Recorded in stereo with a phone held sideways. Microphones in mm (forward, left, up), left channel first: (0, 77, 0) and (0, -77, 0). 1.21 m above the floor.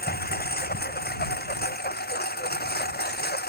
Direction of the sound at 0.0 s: 80° left.